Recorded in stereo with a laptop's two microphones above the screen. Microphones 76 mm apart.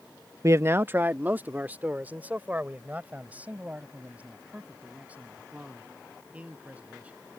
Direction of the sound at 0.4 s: 40° right (ahead or behind).